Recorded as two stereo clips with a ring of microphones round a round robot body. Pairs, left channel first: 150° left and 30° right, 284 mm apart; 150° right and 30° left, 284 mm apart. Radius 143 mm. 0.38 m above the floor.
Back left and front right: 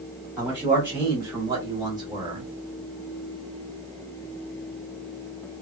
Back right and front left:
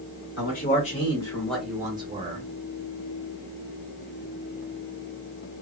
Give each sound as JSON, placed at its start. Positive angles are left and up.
{"t": 0.4, "sound": "a man speaking", "azimuth_deg": -115, "distance_m": 1.2}